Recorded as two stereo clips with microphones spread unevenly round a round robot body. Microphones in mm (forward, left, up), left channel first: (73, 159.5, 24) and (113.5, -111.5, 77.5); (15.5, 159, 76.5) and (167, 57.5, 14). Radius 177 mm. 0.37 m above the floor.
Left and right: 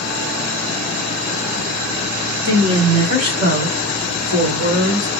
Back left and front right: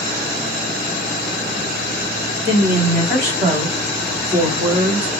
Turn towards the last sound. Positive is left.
turn(degrees=-50)